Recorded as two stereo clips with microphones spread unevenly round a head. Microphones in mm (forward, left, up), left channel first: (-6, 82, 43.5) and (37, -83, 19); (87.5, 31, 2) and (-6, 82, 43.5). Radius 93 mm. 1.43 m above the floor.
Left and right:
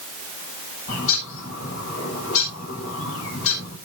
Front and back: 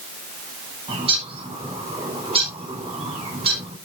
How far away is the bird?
About 4.5 m.